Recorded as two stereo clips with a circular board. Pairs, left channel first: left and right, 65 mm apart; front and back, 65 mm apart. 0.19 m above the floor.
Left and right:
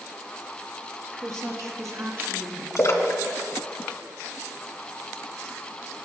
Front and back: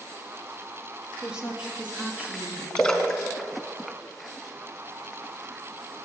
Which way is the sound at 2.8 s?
80° left.